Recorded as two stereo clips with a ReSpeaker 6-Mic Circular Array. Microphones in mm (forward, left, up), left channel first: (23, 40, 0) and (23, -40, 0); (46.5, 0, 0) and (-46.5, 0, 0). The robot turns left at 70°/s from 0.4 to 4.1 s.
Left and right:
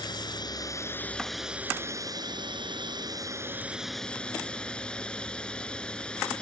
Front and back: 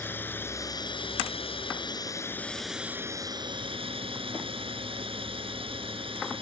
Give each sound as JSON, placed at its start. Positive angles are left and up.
{"t": 0.0, "sound": "a drone", "azimuth_deg": 65}